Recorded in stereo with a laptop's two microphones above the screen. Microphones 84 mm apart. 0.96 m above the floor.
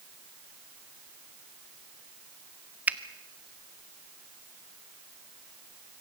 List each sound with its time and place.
2.9 s a finger snap: 20° right (ahead or behind), 0.7 m